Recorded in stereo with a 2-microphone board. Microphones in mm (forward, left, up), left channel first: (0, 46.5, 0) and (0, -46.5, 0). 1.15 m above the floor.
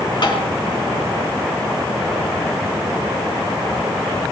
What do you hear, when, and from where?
0.2 s tapping: 50° left (ahead or behind), 4 m